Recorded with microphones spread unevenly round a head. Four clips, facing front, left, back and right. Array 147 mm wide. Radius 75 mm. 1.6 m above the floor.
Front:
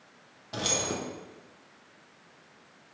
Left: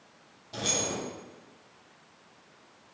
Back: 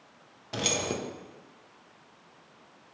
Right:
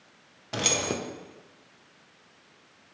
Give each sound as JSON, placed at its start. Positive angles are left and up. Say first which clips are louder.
{"t": 0.5, "sound": "keys jangling", "louder": "right 4 dB, back 1 dB", "azimuth_deg": -120, "distance_m": 0.7}